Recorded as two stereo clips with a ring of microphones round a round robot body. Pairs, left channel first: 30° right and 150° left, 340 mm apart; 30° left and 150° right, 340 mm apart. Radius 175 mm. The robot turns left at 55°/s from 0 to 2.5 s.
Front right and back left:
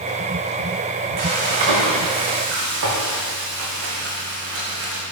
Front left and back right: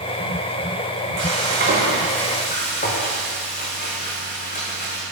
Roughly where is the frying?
Behind.